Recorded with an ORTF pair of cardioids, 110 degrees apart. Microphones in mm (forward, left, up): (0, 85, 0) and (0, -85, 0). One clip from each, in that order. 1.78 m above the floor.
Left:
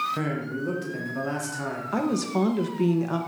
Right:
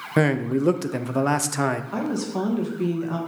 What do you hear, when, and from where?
0.2 s a man speaking: 60° right, 1.1 m
1.9 s a woman speaking: 20° left, 1.7 m